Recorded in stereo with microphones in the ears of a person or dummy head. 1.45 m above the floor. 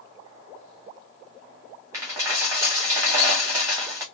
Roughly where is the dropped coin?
Centre.